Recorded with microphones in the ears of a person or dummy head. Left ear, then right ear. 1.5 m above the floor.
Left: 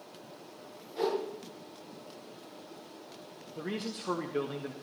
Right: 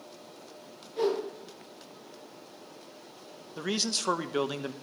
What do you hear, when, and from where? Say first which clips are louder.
1.0 s a whoosh: right 3 dB; 5° left (ahead or behind), 7 m
3.6 s a man speaking: right 8 dB; 55° right (ahead or behind), 1.0 m